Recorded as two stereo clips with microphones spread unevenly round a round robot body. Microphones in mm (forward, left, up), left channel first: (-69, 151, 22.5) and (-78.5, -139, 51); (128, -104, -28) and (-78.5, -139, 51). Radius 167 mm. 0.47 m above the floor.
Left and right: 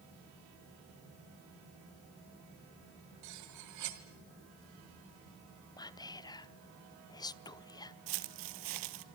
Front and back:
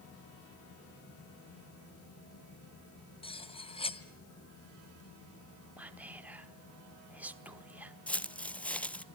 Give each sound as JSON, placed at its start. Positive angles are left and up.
{"t": 3.2, "sound": "cutlery clinking", "azimuth_deg": -50, "distance_m": 1.8}
{"t": 5.8, "sound": "whispering", "azimuth_deg": 55, "distance_m": 0.7}
{"t": 8.1, "sound": "footsteps", "azimuth_deg": -85, "distance_m": 0.9}